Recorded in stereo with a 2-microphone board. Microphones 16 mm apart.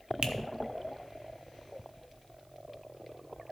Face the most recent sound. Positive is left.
turn(degrees=-60)  # may be behind; listen again after turning